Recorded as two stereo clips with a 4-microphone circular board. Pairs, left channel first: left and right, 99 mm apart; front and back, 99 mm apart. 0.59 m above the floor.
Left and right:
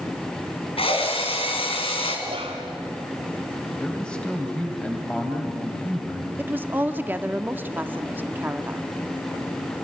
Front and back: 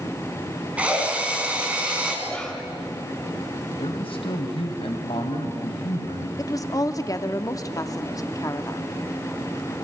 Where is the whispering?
80° right, 2 m.